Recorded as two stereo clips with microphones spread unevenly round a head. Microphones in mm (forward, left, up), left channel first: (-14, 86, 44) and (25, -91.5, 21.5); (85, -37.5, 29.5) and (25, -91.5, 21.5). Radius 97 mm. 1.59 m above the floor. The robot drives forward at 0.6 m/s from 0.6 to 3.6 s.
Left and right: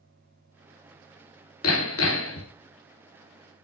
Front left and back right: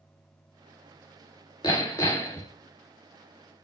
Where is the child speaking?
I don't hear a child speaking.